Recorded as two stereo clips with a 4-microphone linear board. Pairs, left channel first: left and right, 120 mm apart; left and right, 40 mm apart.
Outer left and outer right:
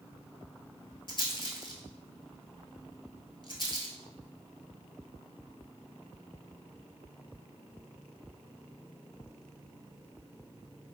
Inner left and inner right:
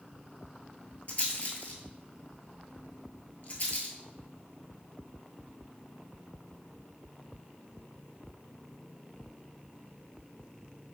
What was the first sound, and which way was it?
A rattle, 45° left (ahead or behind).